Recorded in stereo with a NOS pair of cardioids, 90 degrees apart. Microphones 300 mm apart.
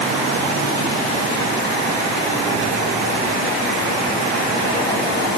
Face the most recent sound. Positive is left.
No sound to turn to.